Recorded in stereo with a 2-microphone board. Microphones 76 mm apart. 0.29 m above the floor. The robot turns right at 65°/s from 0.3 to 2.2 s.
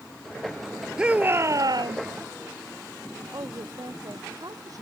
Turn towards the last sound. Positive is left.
turn(degrees=-50)  # may be behind; listen again after turning